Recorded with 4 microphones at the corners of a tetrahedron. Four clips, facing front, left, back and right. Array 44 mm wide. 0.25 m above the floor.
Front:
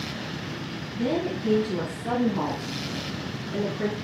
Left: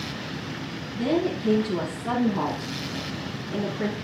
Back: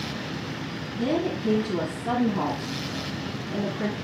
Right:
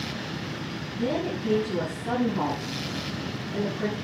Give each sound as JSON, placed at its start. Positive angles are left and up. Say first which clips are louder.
{"t": 0.9, "sound": "a woman speaking", "louder": "left 4 dB, back 1 dB", "azimuth_deg": 55, "distance_m": 4.5}